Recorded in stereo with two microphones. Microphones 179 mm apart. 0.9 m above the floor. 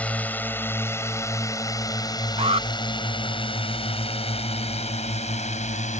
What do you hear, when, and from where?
0.0 s a drone: 10° left (ahead or behind); by 6.0 s 45° left (ahead or behind)
2.4 s an alarm: 35° right (ahead or behind)